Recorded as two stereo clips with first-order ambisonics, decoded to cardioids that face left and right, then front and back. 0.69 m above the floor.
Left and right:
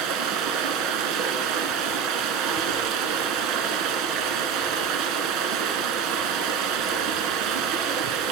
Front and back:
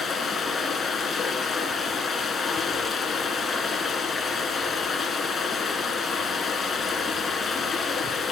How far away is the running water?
About 1.3 m.